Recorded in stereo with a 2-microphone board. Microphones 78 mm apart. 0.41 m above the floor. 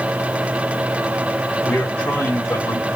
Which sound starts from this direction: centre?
A man speaking, at 1.6 s.